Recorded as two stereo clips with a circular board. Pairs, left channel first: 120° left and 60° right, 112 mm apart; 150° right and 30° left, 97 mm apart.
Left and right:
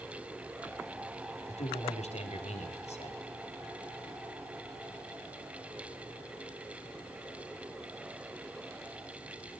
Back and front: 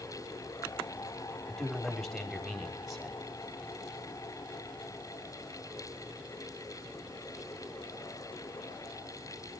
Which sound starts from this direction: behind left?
A man speaking, at 1.5 s.